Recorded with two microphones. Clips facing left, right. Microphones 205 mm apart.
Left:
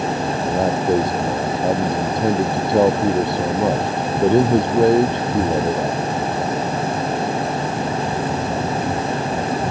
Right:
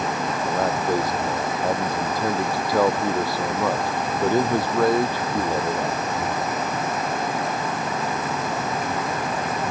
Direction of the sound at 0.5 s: 25° left (ahead or behind).